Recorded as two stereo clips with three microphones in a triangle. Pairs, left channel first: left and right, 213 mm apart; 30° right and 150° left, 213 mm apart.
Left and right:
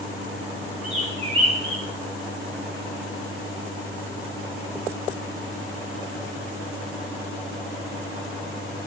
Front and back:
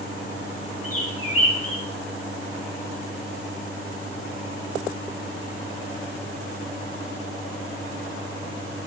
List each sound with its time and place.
0.8 s a bird: 30° right, 2.5 m